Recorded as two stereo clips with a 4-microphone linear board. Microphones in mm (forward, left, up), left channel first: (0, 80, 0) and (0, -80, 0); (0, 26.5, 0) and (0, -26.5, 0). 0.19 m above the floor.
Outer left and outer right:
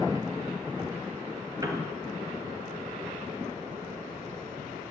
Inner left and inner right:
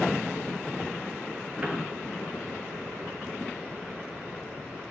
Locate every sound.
1.6 s a piano: 20° right (ahead or behind), 4.5 m